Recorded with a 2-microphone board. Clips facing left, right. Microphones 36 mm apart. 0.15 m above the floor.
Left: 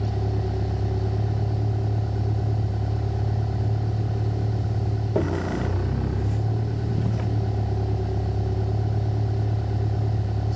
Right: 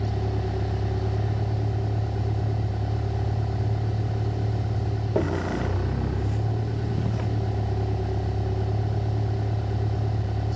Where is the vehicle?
Centre (ahead or behind).